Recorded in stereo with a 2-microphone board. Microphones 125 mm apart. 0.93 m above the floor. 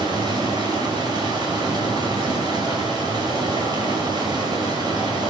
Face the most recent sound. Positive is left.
turn(degrees=-35)  # may be behind; listen again after turning